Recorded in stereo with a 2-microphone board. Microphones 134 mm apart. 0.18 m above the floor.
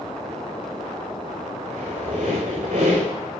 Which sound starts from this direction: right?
A squeak, at 1.7 s.